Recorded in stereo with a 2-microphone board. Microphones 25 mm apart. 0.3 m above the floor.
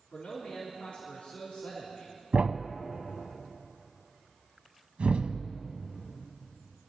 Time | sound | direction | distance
0.1 | a man speaking | 60° left (ahead or behind) | 3 m
2.3 | a thud | 70° right (ahead or behind) | 0.6 m